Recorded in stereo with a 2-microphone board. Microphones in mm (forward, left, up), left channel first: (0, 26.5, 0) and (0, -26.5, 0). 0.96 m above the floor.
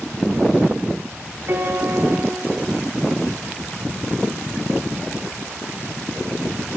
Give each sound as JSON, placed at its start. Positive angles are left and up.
{"t": 1.5, "sound": "a piano", "side_deg": -50, "distance_m": 2.0}